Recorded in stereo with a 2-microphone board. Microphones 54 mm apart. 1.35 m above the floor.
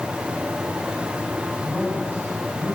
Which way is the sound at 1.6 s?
45° right (ahead or behind).